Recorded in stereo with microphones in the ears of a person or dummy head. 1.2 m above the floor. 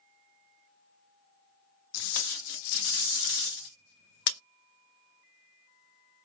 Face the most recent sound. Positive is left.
turn(degrees=85)